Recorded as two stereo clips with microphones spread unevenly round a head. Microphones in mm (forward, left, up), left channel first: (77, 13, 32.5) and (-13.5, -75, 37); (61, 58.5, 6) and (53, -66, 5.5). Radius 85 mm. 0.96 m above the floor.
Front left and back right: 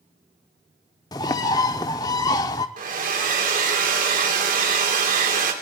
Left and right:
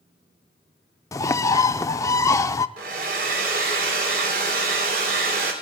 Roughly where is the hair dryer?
Behind right.